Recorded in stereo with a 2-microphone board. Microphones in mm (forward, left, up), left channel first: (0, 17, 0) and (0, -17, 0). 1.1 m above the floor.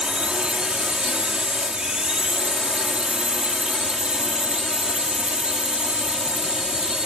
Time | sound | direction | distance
0.0 | a drone | 25° right (ahead or behind) | ?